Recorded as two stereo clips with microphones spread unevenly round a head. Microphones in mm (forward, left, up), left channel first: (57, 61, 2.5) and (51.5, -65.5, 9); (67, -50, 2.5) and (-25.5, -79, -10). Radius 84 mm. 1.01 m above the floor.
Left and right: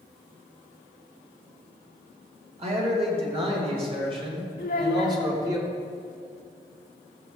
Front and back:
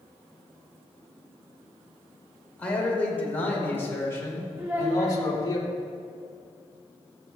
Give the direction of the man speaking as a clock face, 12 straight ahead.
2 o'clock.